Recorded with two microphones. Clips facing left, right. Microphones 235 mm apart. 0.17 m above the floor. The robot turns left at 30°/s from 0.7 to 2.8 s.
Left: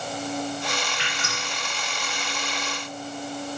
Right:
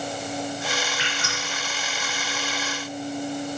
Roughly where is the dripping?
Centre.